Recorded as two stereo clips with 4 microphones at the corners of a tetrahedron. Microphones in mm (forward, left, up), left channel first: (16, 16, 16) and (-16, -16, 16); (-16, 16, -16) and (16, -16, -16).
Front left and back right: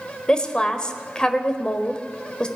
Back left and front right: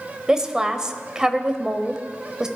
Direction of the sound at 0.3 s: 5° left.